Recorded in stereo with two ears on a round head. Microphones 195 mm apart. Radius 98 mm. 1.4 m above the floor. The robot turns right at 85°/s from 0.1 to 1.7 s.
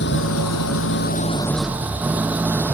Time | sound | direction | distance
0.0 | an engine running | 50° left | ?